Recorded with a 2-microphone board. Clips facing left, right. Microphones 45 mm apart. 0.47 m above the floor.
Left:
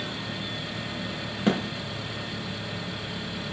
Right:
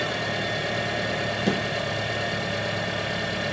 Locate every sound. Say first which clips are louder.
0.0 s an engine running: right 7 dB; 75° right (ahead or behind), 1.5 m
1.5 s a thud: left 2 dB; 25° left (ahead or behind), 3 m